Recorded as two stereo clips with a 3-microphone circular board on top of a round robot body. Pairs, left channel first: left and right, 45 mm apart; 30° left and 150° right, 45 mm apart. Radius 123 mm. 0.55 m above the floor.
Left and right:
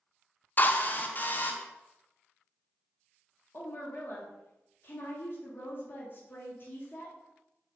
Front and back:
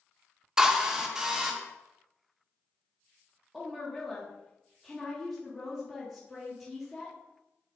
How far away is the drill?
About 1.0 m.